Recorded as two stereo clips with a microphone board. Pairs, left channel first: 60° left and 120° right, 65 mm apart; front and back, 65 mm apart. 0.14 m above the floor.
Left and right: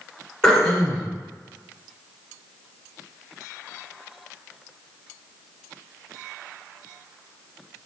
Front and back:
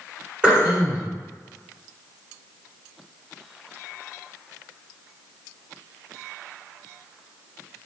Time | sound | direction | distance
0.4 | throat clearing | 130° left | 1.7 m